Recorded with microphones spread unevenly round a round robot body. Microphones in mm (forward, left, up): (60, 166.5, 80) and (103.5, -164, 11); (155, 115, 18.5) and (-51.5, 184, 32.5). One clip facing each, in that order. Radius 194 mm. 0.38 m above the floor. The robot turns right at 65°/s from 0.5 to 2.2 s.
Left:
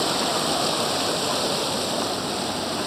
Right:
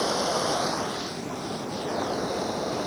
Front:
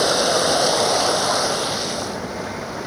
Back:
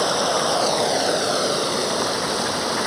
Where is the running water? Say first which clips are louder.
Left 1 dB, front 3 dB; 50° left; by 2.9 s 160° left.